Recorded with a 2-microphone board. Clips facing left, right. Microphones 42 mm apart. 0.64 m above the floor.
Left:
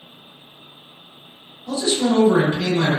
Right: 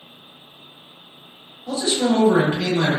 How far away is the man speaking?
About 1.3 m.